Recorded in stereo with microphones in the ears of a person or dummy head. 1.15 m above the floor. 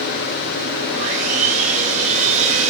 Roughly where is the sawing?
Right.